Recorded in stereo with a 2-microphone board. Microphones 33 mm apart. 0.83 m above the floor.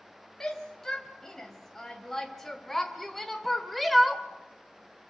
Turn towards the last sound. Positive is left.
turn(degrees=0)  # may be behind; listen again after turning